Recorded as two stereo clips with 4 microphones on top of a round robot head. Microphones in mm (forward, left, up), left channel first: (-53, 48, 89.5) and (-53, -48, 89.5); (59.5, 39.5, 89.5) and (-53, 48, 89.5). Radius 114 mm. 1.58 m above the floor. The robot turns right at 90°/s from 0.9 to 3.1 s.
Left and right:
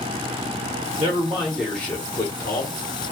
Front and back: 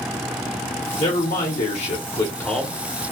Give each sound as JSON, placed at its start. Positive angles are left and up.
{"t": 1.0, "sound": "a man speaking", "azimuth_deg": -60, "distance_m": 1.1}